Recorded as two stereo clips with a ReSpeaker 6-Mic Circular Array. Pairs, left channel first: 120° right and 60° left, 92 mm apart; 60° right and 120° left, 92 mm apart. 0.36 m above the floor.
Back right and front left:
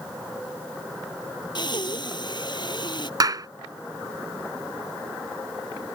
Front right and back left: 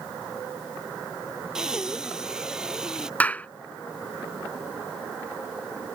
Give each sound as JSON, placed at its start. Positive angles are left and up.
{"t": 1.6, "sound": "breathing", "azimuth_deg": -155}
{"t": 3.2, "sound": "a clap", "azimuth_deg": 15}